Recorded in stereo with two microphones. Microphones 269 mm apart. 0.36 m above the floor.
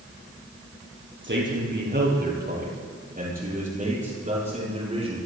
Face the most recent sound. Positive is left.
turn(degrees=-25)  # may be behind; listen again after turning